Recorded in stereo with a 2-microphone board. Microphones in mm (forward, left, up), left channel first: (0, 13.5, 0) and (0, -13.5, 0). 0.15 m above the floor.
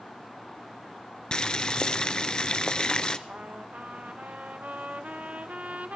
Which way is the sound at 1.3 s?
30° left (ahead or behind).